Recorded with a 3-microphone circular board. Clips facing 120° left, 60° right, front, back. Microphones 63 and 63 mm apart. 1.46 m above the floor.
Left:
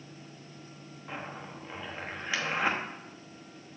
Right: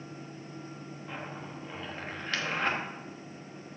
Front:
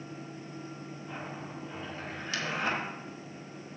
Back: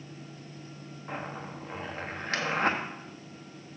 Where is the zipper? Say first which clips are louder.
Left 1 dB, back 5 dB; 165° right, 1.1 m.